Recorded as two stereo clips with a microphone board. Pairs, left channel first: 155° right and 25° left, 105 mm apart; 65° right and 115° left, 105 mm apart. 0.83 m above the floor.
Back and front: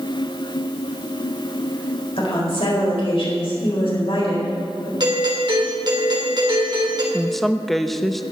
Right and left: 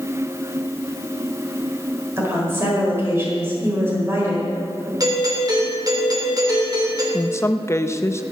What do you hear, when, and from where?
2.2 s a woman speaking: straight behind, 4.5 m
5.0 s a doorbell: 65° left, 3 m
7.1 s a woman speaking: 70° right, 0.6 m